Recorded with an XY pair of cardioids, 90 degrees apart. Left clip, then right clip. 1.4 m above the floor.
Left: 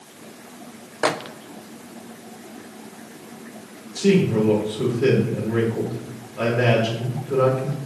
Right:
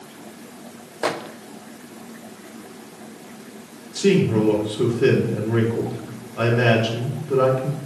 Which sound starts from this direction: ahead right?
A man speaking, at 4.0 s.